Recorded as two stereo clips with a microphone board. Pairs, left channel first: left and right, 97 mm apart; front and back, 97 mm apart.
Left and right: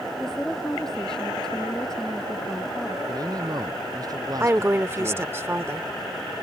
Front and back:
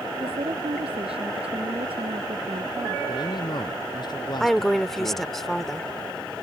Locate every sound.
0.2 s a woman speaking: 175° left
3.1 s a man speaking: 40° right
4.4 s a woman speaking: 85° right